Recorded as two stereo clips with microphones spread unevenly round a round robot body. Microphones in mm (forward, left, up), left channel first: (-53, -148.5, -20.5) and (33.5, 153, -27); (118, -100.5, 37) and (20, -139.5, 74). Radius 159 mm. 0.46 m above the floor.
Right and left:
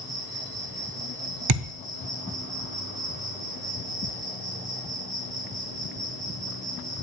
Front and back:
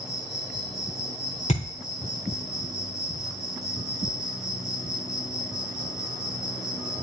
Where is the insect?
15° right, 1.4 m.